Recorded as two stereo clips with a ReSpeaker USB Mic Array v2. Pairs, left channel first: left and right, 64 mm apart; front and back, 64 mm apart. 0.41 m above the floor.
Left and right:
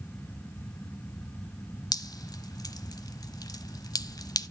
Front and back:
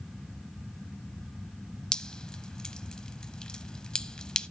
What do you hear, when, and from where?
1.9 s dripping: 80° left, 0.5 m